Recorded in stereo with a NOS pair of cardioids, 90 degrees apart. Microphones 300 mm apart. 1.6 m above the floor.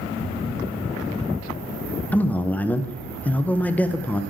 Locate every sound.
2.1 s a man speaking: 5° left, 0.6 m